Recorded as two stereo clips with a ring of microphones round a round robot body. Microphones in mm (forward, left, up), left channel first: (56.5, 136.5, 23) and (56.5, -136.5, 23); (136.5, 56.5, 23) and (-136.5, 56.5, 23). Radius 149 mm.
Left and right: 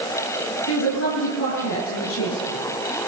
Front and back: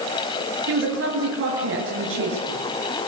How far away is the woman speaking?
About 8 m.